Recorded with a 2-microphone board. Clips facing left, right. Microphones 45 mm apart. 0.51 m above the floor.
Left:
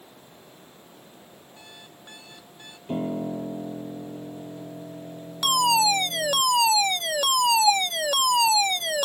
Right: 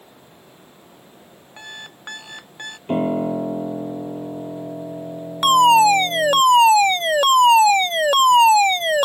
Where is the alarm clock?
80° right.